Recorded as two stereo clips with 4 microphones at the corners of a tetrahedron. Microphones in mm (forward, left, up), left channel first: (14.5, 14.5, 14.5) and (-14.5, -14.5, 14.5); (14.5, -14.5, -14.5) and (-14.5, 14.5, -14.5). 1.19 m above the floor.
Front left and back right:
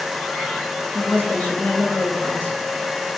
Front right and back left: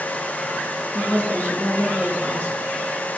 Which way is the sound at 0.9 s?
10° left.